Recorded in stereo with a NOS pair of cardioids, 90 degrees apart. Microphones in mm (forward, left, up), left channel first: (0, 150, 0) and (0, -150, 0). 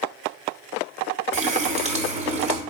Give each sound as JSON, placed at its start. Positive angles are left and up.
{"t": 1.3, "sound": "a running tap", "azimuth_deg": -20, "distance_m": 0.9}